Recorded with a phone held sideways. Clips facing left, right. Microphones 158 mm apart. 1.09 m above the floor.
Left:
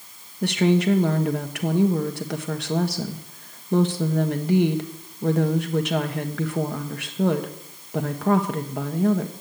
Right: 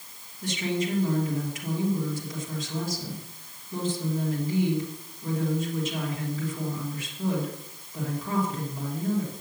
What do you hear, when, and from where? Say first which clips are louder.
0.4 s a woman speaking: left 9 dB; 75° left (ahead or behind), 1.4 m